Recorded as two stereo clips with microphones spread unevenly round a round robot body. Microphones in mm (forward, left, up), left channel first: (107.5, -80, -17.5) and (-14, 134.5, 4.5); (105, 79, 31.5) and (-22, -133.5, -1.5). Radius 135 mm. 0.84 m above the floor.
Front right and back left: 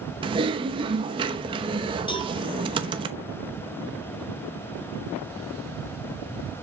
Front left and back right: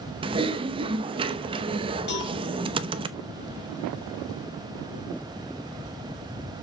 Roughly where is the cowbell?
Ahead.